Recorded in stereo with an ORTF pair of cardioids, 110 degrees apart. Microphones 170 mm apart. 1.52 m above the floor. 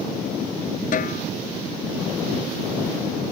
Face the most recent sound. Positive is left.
turn(degrees=50)